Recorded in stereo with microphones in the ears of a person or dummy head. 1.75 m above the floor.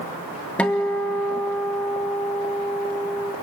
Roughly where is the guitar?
Centre.